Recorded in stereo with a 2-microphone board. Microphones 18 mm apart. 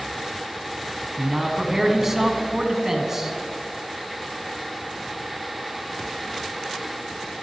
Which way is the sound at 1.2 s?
20° right (ahead or behind).